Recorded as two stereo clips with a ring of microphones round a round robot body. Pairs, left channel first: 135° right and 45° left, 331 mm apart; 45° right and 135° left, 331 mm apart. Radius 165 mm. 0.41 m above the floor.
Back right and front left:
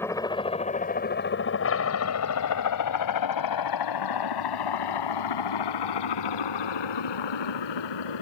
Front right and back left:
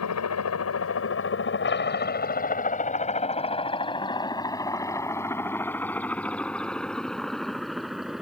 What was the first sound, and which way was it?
A helicopter, 55° right.